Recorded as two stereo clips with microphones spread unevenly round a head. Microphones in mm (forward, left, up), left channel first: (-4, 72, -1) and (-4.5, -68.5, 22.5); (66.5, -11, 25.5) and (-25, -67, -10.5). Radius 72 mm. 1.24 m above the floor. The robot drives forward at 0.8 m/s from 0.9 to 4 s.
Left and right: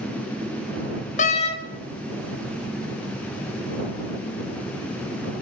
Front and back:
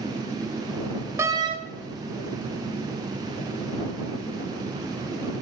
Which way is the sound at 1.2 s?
130° left.